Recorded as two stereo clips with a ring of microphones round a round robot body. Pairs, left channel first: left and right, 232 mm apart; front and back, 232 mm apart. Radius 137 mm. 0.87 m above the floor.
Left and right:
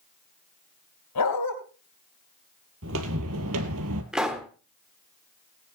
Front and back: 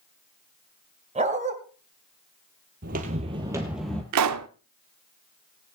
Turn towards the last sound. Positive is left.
turn(degrees=180)